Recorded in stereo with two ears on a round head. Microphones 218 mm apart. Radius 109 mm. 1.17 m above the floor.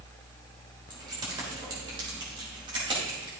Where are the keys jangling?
15° right (ahead or behind), 2.5 m; by 3.3 s 20° right (ahead or behind), 4.5 m.